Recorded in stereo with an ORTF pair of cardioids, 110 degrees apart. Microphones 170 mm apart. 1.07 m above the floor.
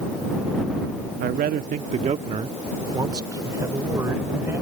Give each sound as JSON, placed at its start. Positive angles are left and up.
{"t": 1.2, "sound": "a man speaking", "azimuth_deg": -70}